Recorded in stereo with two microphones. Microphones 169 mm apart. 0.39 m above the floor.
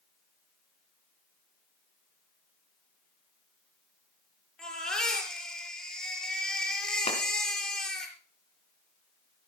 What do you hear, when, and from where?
4.6 s a baby crying: 5° left (ahead or behind), 4.5 m
7.1 s a clap: 35° left (ahead or behind), 4 m